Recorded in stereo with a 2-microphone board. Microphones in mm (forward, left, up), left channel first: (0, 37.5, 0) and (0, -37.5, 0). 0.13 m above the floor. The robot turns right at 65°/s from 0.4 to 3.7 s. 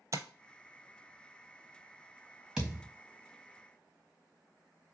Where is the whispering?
I don't hear whispering.